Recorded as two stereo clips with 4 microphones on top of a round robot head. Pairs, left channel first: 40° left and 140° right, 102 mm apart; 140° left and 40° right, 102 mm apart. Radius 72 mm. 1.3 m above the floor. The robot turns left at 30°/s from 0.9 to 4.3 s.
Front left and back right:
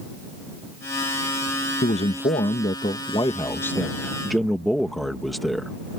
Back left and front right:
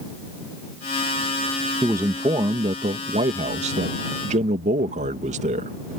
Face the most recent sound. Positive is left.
turn(degrees=-45)